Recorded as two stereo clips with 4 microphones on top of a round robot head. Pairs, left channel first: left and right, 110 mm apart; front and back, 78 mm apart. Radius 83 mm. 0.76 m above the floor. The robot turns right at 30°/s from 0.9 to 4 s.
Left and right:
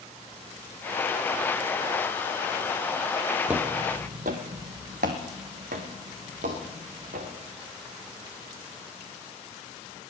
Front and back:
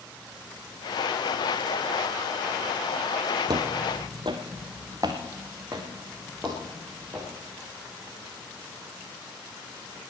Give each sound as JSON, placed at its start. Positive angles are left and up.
{"t": 3.5, "sound": "footsteps", "azimuth_deg": -175, "distance_m": 0.9}